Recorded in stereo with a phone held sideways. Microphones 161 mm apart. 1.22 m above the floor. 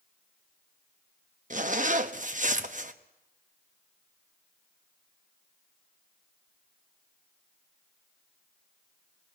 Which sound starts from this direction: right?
A zipper, at 1.5 s.